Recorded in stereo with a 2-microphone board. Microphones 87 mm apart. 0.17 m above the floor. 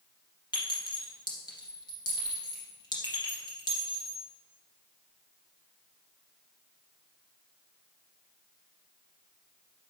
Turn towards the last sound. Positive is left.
turn(degrees=55)  # may be behind; listen again after turning